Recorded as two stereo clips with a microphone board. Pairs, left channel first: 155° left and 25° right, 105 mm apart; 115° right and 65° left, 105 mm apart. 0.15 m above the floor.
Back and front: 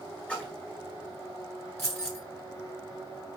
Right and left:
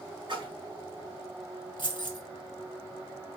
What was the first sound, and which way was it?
A splash, 85° left.